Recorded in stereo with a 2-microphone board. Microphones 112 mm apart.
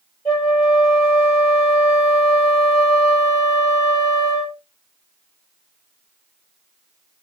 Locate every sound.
0.2 s a flute: 40° left (ahead or behind), 3 m